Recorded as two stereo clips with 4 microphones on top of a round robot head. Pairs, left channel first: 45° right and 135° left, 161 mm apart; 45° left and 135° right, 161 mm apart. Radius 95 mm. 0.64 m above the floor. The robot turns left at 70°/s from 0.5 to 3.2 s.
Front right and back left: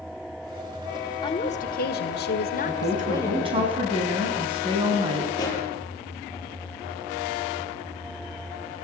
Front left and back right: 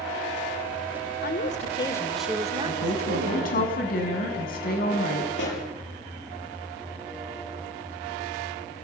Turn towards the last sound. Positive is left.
turn(degrees=25)